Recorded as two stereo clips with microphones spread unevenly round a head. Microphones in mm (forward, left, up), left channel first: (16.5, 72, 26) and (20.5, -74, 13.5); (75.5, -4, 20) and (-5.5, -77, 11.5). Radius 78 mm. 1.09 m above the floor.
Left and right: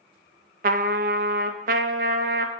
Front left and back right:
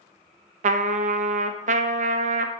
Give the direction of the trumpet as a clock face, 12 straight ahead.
4 o'clock.